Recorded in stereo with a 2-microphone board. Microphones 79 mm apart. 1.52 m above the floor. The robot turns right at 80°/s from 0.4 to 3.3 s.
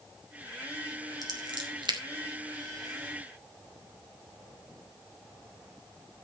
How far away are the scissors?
About 3 m.